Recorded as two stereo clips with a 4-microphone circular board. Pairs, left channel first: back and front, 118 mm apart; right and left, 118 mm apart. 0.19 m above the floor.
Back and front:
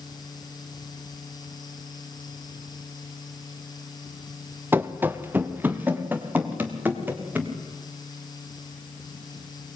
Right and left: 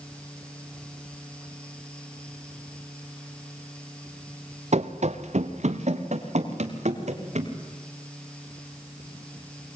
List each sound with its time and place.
4.7 s running footsteps: 70° left, 1.1 m; by 7.5 s 75° left, 3.5 m